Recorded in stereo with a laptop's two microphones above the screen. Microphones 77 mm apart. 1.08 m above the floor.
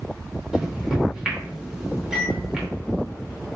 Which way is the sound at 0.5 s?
10° right (ahead or behind).